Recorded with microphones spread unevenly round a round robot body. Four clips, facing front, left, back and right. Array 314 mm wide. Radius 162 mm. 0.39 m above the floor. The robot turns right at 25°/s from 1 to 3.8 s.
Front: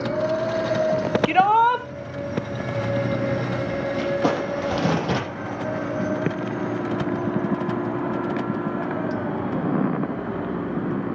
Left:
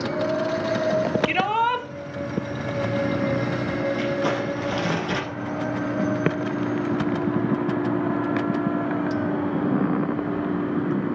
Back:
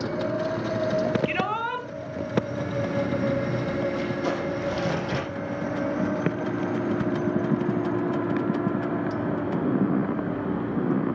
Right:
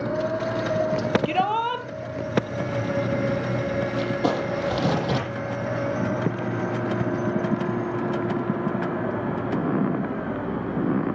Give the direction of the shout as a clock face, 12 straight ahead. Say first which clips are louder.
Left 1 dB, front 11 dB; 12 o'clock.